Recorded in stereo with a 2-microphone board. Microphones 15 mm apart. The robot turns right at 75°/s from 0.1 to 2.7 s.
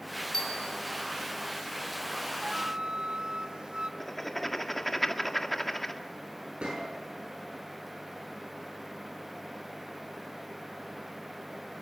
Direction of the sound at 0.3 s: 135° left.